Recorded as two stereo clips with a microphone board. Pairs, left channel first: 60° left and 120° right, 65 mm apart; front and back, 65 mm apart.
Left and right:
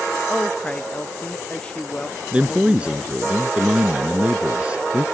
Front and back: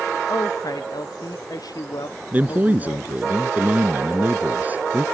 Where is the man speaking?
165° right.